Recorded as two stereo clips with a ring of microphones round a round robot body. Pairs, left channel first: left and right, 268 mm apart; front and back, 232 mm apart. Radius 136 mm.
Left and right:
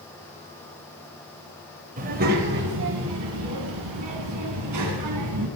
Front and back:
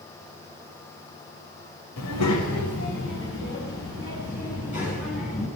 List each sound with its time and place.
2.0 s a child speaking: 30° right, 2.5 m; by 5.5 s 70° right, 4 m